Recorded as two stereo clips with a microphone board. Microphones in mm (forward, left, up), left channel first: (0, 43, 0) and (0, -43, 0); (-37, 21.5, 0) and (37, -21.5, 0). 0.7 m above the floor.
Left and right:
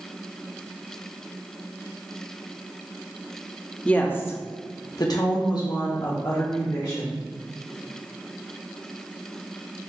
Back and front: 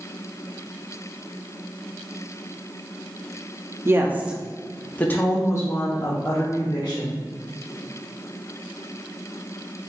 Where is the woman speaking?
20° left, 0.7 m; by 7.2 s 125° left, 1.6 m.